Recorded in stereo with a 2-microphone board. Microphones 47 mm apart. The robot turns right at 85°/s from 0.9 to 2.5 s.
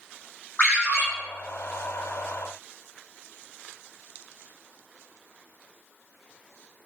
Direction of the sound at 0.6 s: 35° left (ahead or behind).